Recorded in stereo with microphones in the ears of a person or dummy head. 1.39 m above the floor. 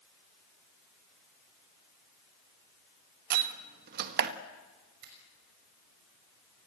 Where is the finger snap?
55° right (ahead or behind), 6 m.